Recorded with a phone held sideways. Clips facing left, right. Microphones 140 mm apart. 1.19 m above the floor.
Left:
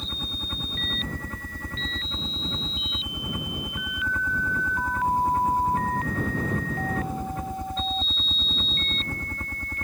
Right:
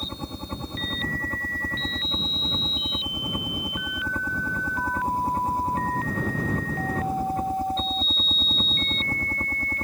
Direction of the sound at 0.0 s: 35° right (ahead or behind).